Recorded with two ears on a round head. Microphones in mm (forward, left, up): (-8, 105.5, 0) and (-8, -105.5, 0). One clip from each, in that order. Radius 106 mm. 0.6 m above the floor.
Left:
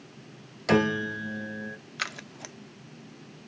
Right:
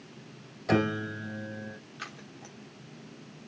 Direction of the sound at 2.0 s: 60° left (ahead or behind).